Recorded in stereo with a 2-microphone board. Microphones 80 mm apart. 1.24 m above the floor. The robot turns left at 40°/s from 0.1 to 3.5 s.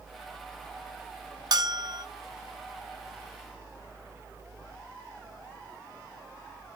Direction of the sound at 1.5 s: 55° right (ahead or behind).